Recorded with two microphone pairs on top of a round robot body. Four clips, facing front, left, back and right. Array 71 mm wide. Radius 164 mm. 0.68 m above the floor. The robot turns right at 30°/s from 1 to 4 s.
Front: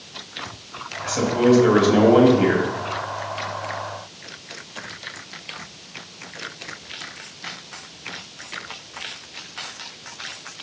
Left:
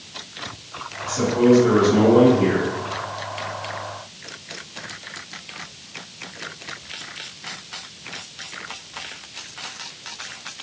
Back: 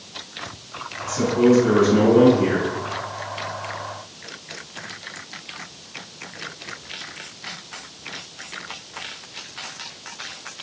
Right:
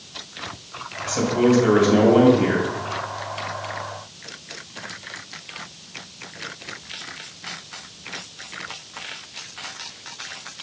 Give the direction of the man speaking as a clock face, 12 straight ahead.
2 o'clock.